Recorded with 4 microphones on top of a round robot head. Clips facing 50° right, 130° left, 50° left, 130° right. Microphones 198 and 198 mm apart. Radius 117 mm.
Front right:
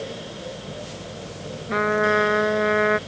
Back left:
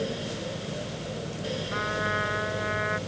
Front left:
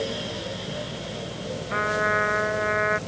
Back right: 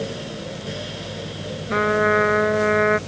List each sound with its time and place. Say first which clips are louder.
1.7 s a trumpet: front right 10 dB, back right 9 dB; 85° right